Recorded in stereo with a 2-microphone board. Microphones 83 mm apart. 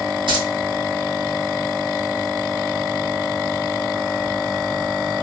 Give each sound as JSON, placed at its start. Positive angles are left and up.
{"t": 0.3, "sound": "keys jangling", "side_deg": -75, "distance_m": 3.0}